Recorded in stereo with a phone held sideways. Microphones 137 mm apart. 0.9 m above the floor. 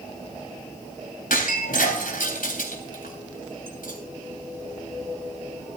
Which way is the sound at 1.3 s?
90° left.